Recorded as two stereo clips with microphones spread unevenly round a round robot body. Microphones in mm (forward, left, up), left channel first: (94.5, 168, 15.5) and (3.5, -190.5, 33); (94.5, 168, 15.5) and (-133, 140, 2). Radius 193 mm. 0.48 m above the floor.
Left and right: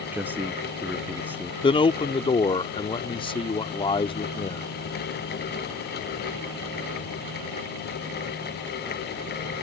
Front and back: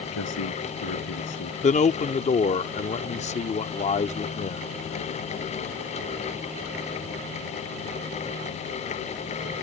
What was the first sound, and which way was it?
A man speaking, 20° right.